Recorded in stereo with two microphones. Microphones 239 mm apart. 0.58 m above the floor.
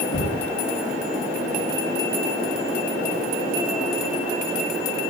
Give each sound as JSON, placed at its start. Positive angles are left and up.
{"t": 0.1, "sound": "knocking", "side_deg": 65, "distance_m": 6.0}